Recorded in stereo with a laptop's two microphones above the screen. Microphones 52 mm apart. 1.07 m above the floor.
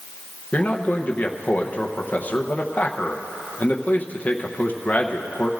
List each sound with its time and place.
0.5 s a man speaking: 30° left (ahead or behind), 0.8 m